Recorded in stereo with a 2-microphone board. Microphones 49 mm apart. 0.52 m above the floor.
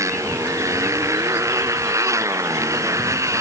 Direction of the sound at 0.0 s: 80° right.